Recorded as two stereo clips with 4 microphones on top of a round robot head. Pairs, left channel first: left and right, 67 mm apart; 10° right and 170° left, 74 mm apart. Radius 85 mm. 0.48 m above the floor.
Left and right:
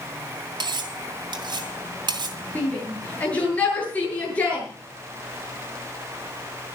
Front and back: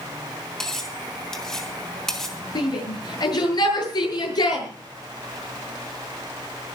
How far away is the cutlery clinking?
About 2.5 m.